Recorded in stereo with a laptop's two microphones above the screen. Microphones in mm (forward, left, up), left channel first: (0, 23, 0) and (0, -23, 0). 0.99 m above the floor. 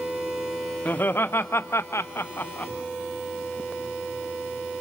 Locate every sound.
0.8 s laughter: 50° left (ahead or behind), 1.4 m; by 2.7 s 35° left (ahead or behind), 1.0 m